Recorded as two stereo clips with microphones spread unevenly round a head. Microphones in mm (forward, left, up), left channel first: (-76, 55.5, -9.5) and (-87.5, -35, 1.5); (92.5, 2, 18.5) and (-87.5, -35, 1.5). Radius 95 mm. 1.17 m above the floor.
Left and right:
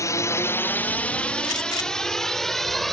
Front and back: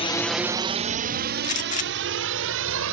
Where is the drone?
65° left; by 2.9 s 170° left.